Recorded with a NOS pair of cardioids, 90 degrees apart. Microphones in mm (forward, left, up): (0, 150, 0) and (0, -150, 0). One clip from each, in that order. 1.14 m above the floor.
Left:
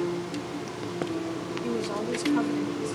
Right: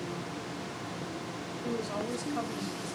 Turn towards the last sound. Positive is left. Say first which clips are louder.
# left 3 dB
turn(degrees=40)